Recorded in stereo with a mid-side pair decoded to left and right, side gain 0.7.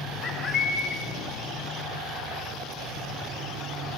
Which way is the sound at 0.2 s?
35° left.